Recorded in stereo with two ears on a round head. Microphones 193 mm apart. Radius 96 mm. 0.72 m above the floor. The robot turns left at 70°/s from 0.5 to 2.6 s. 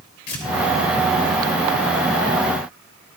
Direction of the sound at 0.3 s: 70° left (ahead or behind).